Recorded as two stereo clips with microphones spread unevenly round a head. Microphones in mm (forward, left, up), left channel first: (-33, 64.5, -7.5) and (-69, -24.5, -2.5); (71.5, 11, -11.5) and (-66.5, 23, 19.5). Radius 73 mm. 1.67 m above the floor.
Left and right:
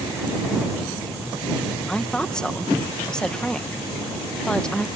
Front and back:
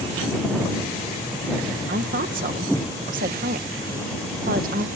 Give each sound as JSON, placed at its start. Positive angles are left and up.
{"t": 1.9, "sound": "a woman speaking", "azimuth_deg": 150}